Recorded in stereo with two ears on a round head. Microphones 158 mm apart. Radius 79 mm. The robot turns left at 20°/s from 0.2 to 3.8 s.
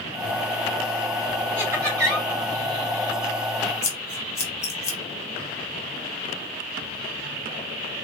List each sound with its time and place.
1.6 s laughter: 10° right (ahead or behind), 1.8 m; by 2.3 s 25° right (ahead or behind), 1.8 m
3.8 s scissors: 15° left (ahead or behind), 0.9 m